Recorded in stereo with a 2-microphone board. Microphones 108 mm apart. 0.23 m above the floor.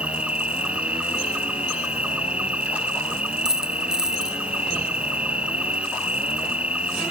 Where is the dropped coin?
5° right (ahead or behind).